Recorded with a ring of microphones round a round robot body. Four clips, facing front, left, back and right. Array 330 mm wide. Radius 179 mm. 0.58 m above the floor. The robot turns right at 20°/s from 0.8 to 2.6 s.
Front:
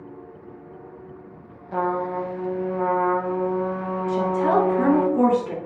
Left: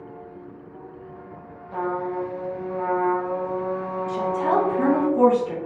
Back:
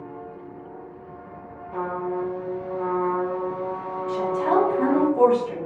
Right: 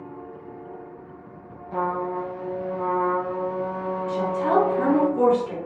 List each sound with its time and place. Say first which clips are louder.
1.7 s a trumpet: even, front 3 dB; 5° right, 0.6 m; by 5.1 s 15° left, 0.6 m
4.1 s a woman speaking: even, front 1 dB; 20° left, 1.8 m